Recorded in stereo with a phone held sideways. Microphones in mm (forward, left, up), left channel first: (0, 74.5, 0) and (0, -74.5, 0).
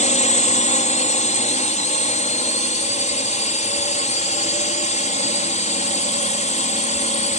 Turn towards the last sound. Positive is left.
turn(degrees=55)  # may be behind; listen again after turning